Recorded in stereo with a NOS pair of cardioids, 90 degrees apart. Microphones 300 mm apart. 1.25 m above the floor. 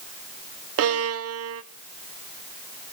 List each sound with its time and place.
0.8 s a violin: 50° right, 0.9 m